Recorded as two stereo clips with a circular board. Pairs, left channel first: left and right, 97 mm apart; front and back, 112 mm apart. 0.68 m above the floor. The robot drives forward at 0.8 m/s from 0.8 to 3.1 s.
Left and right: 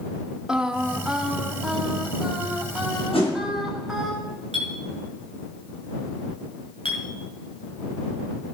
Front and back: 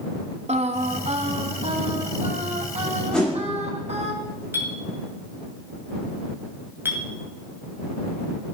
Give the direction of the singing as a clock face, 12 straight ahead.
6 o'clock.